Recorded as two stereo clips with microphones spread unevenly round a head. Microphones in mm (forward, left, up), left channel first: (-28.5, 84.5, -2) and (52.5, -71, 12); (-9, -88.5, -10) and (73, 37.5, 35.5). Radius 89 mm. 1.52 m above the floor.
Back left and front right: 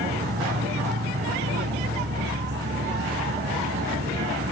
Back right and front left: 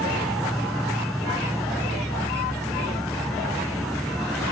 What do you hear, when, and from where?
0.0 s an insect: 30° right